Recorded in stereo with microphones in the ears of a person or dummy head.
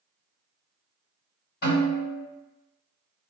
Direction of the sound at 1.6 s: 55° left (ahead or behind).